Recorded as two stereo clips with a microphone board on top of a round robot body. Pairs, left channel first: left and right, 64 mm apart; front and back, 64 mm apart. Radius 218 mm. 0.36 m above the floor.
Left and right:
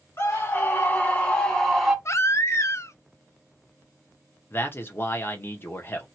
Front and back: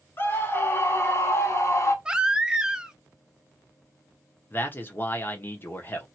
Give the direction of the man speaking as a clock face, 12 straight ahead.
10 o'clock.